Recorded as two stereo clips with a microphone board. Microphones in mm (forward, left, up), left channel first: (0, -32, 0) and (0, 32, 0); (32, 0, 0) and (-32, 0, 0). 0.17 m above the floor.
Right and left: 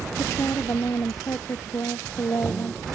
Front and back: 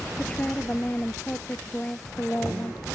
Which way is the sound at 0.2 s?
60° right.